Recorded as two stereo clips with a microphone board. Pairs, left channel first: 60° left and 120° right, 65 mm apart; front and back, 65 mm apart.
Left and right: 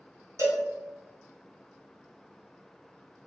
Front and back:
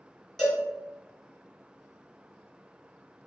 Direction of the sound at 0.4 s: 85° right.